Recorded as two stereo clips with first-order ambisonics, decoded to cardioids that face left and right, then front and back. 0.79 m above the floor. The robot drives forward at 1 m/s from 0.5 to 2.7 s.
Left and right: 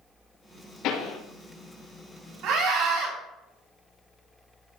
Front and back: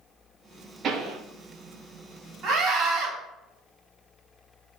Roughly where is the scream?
Behind right.